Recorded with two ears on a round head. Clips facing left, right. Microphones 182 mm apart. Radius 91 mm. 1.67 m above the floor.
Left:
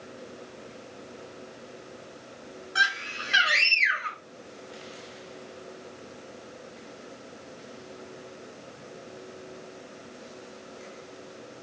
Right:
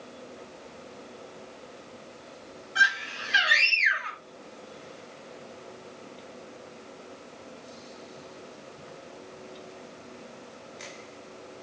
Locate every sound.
2.8 s a scream: 60° left (ahead or behind), 6.5 m